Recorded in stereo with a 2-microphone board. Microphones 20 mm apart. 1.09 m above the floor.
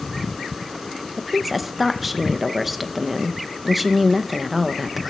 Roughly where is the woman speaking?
Centre.